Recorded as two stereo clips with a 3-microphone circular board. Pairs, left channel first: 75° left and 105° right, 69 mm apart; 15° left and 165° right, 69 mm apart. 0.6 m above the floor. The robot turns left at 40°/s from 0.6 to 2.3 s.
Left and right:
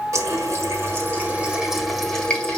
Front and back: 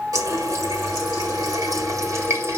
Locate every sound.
0.1 s a running tap: 140° right, 1.7 m; by 2.6 s 150° left, 1.7 m